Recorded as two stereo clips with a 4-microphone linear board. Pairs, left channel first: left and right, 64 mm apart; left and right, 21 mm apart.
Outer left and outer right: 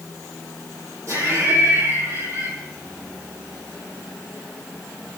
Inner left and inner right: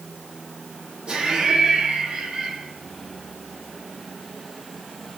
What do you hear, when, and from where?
1.1 s laughter: 55° right (ahead or behind), 9.5 m; by 2.5 s 45° right (ahead or behind), 8 m